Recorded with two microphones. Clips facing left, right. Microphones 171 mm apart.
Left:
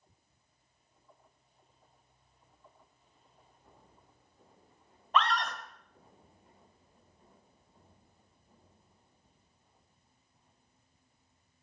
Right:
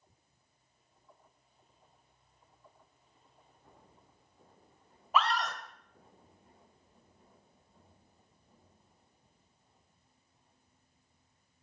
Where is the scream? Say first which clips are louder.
Even; 5° right (ahead or behind), 1.1 m.